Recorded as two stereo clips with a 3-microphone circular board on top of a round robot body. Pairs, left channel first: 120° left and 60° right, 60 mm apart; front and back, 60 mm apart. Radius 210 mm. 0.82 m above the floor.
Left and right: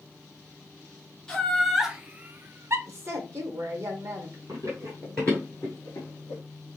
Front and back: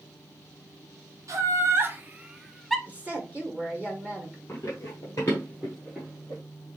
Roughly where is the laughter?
Behind.